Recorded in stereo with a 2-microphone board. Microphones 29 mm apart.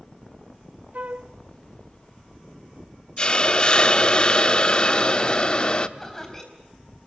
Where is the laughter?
10° left (ahead or behind), 4 m.